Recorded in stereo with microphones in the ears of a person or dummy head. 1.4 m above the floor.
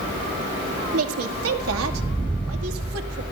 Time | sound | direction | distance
0.9 | a woman speaking | 85° right | 2 m